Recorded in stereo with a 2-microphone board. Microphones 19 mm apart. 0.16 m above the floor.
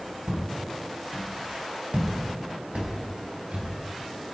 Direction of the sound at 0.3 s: 65° right (ahead or behind).